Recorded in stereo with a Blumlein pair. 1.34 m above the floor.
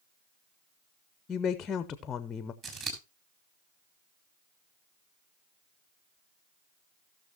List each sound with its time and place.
1.3 s a woman speaking: 20° left, 0.6 m
2.6 s scissors: 30° right, 3.5 m